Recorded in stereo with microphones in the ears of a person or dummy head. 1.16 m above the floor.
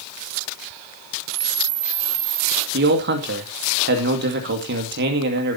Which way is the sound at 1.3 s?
80° right.